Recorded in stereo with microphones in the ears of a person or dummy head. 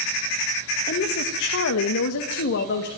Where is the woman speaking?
45° left (ahead or behind), 1.8 m; by 2.9 s 55° left (ahead or behind), 2.5 m.